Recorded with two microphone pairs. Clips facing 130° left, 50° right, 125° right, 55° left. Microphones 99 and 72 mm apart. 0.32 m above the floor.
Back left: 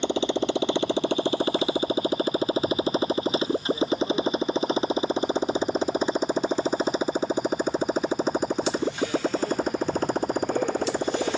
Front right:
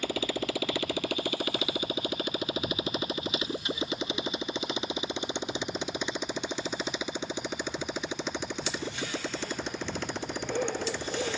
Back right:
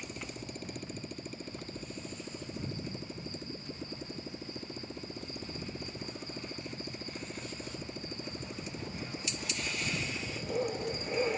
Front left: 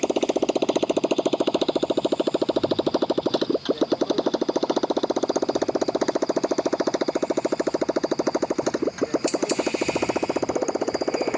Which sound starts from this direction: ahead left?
A motorcycle, at 0.0 s.